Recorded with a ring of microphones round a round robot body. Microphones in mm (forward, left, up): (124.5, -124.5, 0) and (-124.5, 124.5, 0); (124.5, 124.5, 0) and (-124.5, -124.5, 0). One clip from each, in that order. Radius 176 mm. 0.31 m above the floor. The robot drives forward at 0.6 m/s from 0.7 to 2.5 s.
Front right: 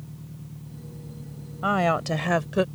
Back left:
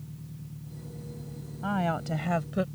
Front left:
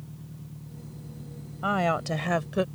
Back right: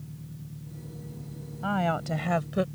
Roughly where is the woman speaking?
Ahead.